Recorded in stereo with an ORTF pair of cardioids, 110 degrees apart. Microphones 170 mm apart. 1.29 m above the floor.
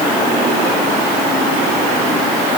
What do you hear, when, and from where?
Only background noise.